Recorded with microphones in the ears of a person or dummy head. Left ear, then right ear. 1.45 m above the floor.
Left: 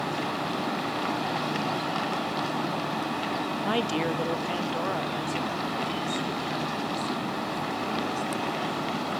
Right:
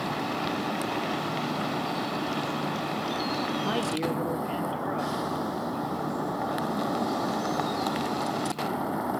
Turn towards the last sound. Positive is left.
turn(degrees=75)  # may be behind; listen again after turning